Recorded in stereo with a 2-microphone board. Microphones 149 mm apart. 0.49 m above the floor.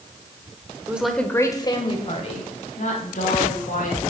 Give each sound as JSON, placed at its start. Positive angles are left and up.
{"t": 0.9, "sound": "a woman speaking", "side_deg": -10, "distance_m": 1.2}